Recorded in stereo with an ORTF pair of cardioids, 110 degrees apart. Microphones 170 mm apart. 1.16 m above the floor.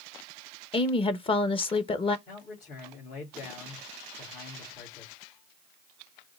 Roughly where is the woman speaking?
Ahead left.